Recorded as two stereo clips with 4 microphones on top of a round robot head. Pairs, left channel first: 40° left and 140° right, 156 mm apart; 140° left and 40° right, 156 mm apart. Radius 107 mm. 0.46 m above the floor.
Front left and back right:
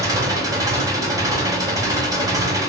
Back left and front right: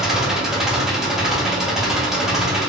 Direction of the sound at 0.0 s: 125° right.